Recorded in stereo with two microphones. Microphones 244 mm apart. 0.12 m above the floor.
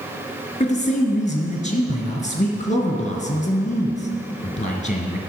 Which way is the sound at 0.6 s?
30° left (ahead or behind).